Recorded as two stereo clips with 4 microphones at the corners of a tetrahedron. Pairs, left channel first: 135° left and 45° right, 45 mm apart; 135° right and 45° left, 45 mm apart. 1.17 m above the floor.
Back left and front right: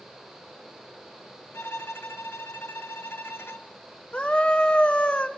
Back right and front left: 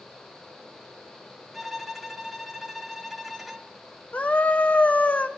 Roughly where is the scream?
Behind.